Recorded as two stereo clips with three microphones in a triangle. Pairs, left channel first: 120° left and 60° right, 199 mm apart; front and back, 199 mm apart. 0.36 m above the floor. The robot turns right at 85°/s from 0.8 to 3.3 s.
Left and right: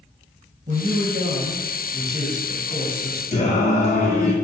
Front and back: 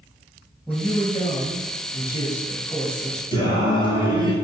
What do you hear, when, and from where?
0.7 s a man speaking: 100° right, 2.5 m; by 3.2 s 105° left, 2.5 m
3.3 s singing: 65° left, 1.9 m